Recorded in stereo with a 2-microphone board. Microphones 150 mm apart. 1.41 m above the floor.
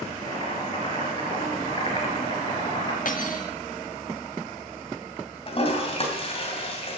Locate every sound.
0.2 s boiling: 35° left (ahead or behind), 3.5 m
3.0 s cutlery clinking: 65° left (ahead or behind), 1.8 m
5.5 s a toilet flushing: 40° left (ahead or behind), 3 m